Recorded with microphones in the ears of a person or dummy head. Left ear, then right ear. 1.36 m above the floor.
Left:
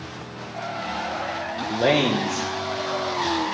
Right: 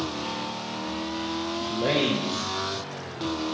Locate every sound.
1.7 s a man speaking: 45° left (ahead or behind), 0.7 m